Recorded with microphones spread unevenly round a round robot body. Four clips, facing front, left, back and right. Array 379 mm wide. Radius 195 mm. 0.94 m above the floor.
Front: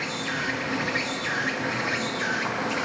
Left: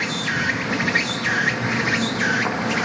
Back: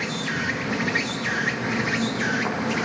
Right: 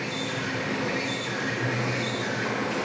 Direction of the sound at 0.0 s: 105° left.